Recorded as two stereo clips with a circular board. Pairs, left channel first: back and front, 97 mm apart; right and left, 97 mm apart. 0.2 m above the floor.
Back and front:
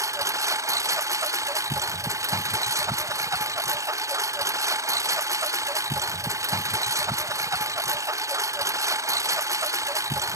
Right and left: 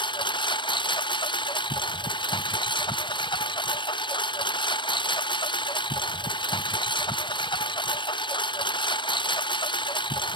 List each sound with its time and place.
0.0 s a lawn mower: 55° right